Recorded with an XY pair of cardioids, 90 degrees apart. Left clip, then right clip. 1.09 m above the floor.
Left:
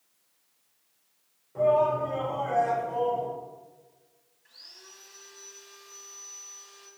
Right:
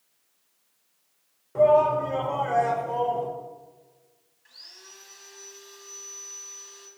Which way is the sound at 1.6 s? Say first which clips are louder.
Right 4 dB; 65° right.